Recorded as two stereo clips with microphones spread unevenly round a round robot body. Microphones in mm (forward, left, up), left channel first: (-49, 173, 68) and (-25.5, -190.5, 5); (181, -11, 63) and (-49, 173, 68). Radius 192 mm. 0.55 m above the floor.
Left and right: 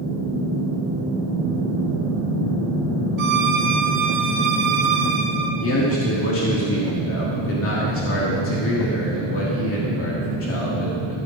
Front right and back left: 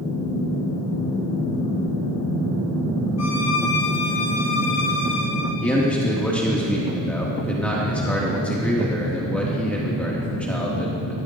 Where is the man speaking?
45° left, 1.6 m.